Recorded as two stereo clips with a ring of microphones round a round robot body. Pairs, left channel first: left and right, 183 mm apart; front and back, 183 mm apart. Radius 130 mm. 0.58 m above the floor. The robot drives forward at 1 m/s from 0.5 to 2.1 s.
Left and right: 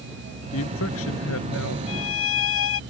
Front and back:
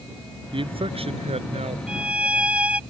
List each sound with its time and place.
0.5 s a man speaking: 115° left; by 1.8 s 125° left
1.9 s a violin: 95° left